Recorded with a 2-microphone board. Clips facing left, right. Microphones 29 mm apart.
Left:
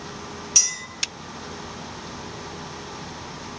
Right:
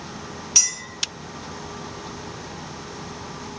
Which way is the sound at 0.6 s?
15° right (ahead or behind).